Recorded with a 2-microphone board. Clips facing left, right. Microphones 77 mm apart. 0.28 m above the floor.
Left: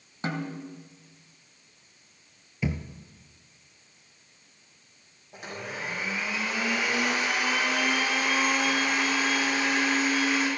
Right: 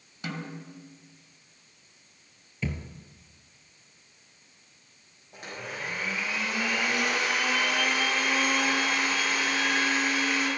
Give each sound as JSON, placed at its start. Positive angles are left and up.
{"t": 0.2, "sound": "a snare drum", "side_deg": 35, "distance_m": 1.8}
{"t": 2.6, "sound": "a thud", "side_deg": 15, "distance_m": 1.1}
{"t": 5.3, "sound": "a blender", "side_deg": 5, "distance_m": 6.5}